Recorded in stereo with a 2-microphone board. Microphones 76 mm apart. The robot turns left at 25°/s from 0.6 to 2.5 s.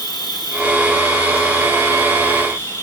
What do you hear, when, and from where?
0.0 s an insect: 75° left, 4 m; by 2.8 s 30° left, 4 m